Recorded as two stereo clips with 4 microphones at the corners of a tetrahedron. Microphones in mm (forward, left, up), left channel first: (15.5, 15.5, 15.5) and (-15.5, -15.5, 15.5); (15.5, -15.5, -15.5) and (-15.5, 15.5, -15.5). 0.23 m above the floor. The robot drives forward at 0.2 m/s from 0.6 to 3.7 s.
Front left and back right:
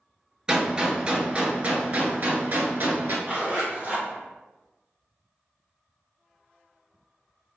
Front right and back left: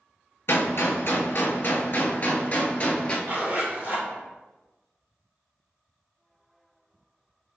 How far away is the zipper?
About 1.6 m.